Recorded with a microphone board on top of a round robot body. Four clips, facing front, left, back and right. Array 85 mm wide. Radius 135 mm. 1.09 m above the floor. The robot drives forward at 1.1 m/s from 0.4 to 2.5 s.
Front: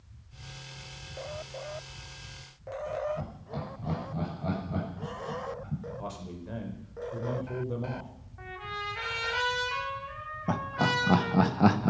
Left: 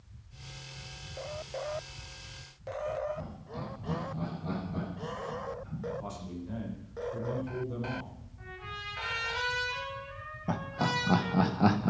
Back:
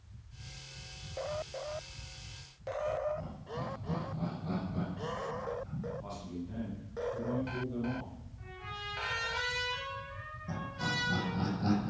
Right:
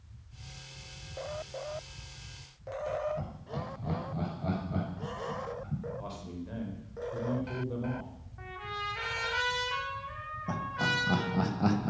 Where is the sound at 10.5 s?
20° left, 1.4 m.